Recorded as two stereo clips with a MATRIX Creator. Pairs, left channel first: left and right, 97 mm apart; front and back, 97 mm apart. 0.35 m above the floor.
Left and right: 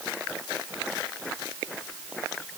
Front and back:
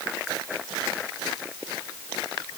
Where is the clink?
No clink in this recording.